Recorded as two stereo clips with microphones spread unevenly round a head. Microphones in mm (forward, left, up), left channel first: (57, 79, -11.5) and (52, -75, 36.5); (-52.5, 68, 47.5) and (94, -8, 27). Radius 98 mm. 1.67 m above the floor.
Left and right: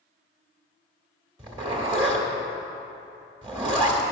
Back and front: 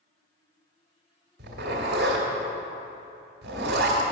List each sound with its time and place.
1.4 s a zipper: 60° right, 1.7 m